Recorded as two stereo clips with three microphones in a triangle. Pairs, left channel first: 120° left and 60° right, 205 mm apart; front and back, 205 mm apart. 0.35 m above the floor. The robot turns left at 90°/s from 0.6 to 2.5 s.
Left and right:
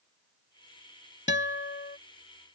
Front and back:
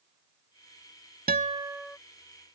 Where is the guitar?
140° left; by 2.0 s 80° left.